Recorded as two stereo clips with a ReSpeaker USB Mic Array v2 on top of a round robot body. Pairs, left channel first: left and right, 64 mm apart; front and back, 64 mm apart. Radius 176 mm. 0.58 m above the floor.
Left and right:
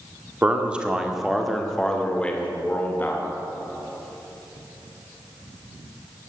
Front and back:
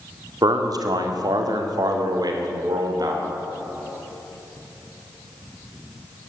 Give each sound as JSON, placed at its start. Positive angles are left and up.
{"t": 0.4, "sound": "a man speaking", "azimuth_deg": -155, "distance_m": 2.0}